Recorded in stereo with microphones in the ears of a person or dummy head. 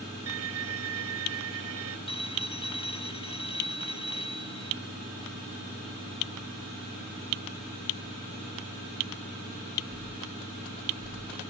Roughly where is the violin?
Right.